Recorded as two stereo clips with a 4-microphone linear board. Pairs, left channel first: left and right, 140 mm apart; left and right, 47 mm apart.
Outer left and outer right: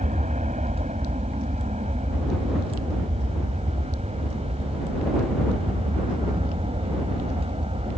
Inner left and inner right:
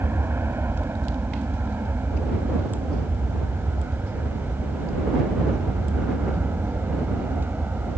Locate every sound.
0.0 s an aircraft: 60° right (ahead or behind); by 8.0 s 45° right (ahead or behind)